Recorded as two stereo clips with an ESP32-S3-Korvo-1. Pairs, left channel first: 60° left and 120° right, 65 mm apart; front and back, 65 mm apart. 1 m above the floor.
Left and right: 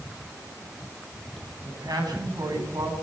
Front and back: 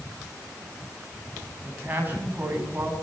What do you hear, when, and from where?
1.6 s a man speaking: 120° right, 8.5 m